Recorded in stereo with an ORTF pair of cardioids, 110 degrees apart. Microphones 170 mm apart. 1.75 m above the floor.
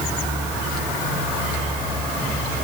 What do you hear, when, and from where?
Only background noise.